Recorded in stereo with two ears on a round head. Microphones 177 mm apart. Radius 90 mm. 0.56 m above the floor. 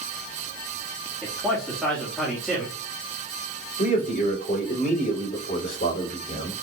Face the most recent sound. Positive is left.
turn(degrees=45)  # may be behind; listen again after turning